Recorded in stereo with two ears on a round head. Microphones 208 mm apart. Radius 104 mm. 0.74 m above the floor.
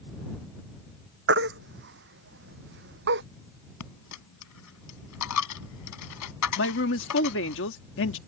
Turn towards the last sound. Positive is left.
turn(degrees=55)  # may be behind; listen again after turning